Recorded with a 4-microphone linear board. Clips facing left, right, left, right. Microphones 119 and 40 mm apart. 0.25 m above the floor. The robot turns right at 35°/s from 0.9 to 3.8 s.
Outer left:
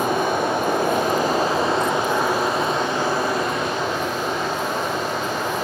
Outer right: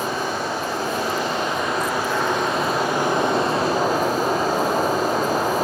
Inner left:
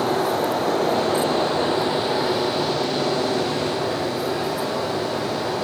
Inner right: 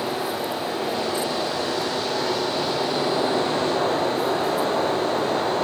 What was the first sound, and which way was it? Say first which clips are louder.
Running water: outer left 4 dB, inner left 5 dB; 120° left.